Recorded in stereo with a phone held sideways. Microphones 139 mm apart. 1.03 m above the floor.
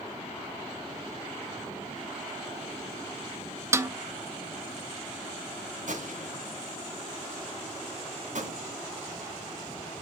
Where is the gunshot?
70° right (ahead or behind), 3 m.